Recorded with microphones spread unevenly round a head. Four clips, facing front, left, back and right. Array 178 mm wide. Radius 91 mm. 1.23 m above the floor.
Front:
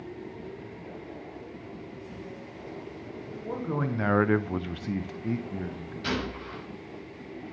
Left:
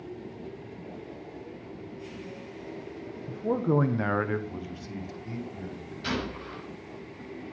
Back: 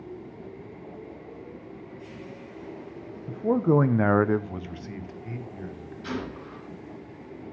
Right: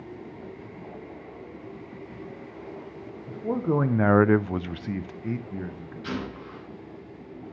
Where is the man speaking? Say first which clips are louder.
Even, back 11 dB; 160° left, 1.3 m; by 6.2 s 40° right, 2.5 m.